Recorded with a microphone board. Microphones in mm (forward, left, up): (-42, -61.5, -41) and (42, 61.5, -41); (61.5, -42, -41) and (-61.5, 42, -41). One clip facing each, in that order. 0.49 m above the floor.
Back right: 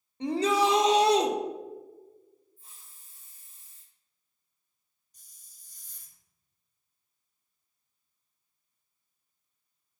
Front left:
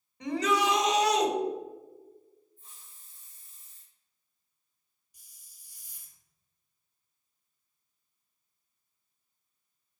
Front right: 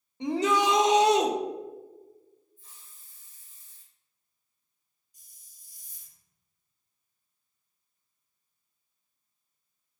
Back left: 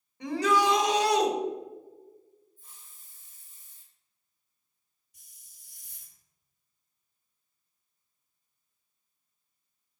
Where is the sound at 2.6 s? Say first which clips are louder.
Front left 1 dB, even; straight behind, 3 m.